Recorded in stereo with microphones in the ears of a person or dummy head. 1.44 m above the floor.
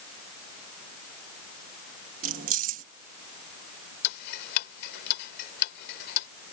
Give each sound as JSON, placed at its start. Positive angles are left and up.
{"t": 2.2, "sound": "keys jangling", "side_deg": -45}
{"t": 4.0, "sound": "ticking", "side_deg": 60}